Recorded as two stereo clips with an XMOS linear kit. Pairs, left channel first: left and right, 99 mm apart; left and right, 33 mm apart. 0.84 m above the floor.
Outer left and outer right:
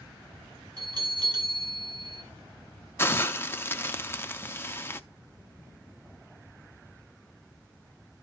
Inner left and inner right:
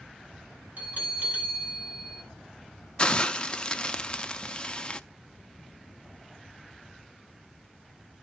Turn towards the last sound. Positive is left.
turn(degrees=25)  # may be behind; listen again after turning